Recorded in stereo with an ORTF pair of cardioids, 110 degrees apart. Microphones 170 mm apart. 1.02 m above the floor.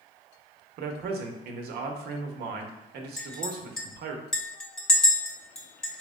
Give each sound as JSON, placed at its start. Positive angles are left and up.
{"t": 0.8, "sound": "a man speaking", "azimuth_deg": -70, "distance_m": 0.9}
{"t": 3.2, "sound": "a clink", "azimuth_deg": 5, "distance_m": 0.8}